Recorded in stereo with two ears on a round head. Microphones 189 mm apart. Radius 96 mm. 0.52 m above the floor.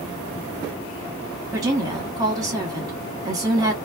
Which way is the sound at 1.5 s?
20° right (ahead or behind).